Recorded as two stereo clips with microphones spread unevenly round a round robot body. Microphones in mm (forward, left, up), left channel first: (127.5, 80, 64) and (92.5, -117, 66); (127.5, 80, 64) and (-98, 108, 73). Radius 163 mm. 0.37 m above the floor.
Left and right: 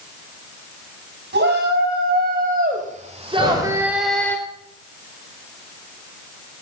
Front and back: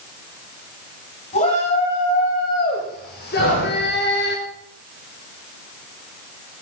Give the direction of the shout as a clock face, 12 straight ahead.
2 o'clock.